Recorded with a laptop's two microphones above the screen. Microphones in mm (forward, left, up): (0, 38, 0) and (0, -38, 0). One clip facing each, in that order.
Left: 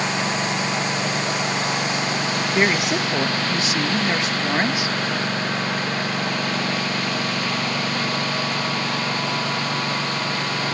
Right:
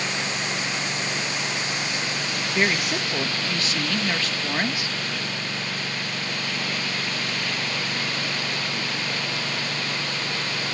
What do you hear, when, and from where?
0.0 s a lawn mower: 55° left (ahead or behind); by 10.7 s 45° left (ahead or behind)
2.5 s a woman speaking: 20° left (ahead or behind)